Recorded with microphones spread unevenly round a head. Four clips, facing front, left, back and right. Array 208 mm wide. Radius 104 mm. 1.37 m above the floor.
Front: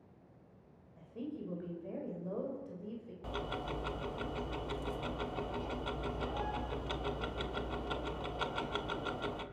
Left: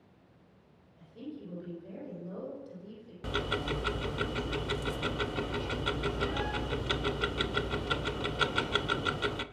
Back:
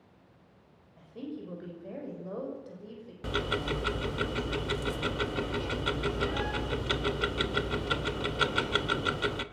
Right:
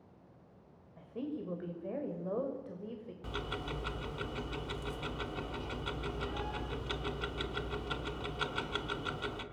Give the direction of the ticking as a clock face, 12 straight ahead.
7 o'clock.